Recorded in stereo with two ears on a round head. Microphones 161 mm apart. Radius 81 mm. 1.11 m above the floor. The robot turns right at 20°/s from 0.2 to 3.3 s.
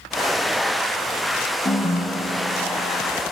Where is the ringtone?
25° left (ahead or behind), 0.8 m; by 3.1 s 50° left (ahead or behind), 0.8 m.